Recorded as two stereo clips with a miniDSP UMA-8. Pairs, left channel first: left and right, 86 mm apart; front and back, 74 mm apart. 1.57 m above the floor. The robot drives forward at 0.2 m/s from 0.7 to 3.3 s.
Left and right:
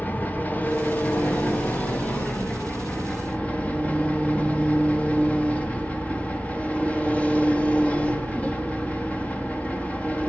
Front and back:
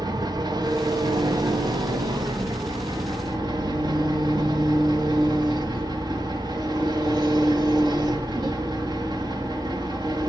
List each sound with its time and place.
0.0 s an engine running: 160° left, 1.8 m; by 10.3 s 165° left, 2.5 m